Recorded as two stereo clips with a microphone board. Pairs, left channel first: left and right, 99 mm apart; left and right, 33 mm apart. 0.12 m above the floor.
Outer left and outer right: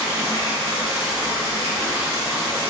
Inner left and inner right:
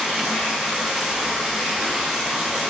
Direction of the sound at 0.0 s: 20° right (ahead or behind).